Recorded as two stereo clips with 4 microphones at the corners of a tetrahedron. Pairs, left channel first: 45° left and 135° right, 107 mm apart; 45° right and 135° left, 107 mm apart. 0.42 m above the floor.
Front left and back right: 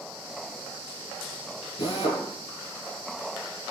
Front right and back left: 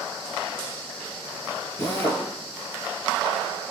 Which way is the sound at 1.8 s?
20° left.